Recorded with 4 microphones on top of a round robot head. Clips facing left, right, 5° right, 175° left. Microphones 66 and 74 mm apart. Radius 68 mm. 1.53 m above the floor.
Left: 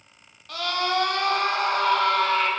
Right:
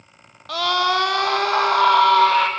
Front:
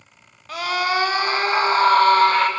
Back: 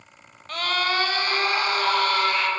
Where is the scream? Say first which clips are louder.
Right 6 dB, front 3 dB; 90° right, 2.5 m; by 2.5 s 60° right, 3 m.